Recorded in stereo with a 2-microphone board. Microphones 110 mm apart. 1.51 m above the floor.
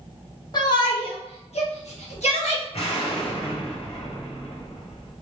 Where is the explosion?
60° left (ahead or behind), 0.9 m.